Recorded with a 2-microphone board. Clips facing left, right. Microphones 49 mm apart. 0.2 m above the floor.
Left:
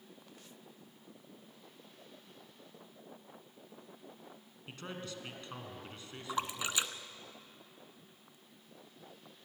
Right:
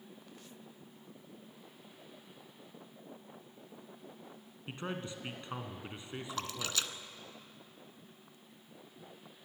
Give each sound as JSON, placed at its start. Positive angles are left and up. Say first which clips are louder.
{"t": 4.7, "sound": "a man speaking", "louder": "right 4 dB", "side_deg": -20, "distance_m": 2.5}
{"t": 6.3, "sound": "a splash", "louder": "left 4 dB", "side_deg": 20, "distance_m": 1.0}